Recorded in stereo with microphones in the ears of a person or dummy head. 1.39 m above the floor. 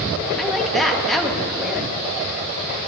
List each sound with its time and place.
0.4 s a woman speaking: 5° left (ahead or behind), 1.3 m